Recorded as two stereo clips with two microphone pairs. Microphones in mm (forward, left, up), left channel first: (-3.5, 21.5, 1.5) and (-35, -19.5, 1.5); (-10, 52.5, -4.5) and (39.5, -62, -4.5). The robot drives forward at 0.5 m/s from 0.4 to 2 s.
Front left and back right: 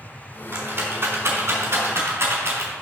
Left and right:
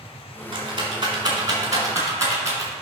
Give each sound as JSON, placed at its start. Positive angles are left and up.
{"t": 0.5, "sound": "a rattle", "azimuth_deg": -105, "distance_m": 1.8}